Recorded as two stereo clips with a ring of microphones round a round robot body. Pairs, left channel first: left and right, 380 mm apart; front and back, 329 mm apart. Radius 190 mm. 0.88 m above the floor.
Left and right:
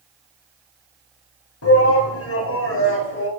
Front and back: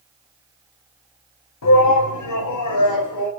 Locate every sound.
1.6 s a shout: 35° left, 6.5 m; by 3.3 s 30° left, 7.5 m